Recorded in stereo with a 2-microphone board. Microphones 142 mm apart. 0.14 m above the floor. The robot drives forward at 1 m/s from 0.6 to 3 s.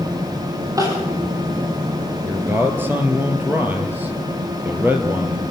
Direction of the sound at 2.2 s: 20° right (ahead or behind).